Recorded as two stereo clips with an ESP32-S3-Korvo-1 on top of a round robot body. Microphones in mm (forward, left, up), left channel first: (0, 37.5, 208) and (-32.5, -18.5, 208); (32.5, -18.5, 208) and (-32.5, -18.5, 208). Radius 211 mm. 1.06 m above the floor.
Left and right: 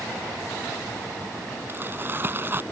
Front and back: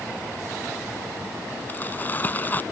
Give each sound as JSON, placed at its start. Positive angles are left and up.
{"t": 1.7, "sound": "crumpling", "azimuth_deg": -60}